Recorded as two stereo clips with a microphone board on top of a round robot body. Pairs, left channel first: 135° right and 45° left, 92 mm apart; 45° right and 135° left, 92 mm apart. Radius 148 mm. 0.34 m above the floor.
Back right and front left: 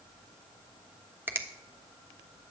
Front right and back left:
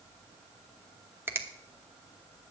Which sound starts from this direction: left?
A finger snap, at 1.3 s.